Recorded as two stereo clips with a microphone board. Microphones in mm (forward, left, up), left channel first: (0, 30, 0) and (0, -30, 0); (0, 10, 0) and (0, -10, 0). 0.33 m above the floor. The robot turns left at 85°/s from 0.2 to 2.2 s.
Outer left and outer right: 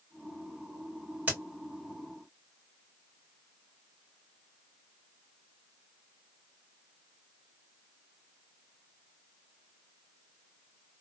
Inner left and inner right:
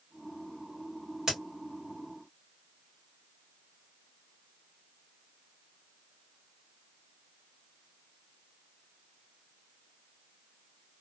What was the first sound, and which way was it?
A crack, 25° right (ahead or behind).